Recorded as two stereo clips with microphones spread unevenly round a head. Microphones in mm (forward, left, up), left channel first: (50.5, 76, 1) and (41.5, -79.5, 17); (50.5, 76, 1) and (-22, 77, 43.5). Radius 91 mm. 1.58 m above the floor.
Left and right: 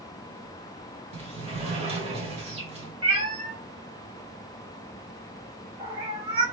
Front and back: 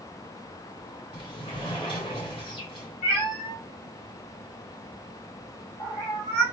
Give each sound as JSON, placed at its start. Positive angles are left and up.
{"t": 1.1, "sound": "a sliding door", "azimuth_deg": -40, "distance_m": 1.8}
{"t": 3.0, "sound": "a cat meowing", "azimuth_deg": -45, "distance_m": 2.5}